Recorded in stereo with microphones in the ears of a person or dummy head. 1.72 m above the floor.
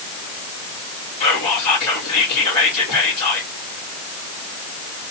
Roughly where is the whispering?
Left.